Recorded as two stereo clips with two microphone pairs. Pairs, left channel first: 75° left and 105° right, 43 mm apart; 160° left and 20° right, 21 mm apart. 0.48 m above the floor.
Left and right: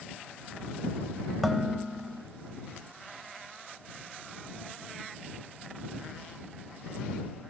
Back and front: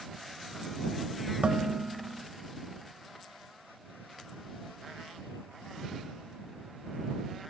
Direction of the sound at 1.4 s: 15° right.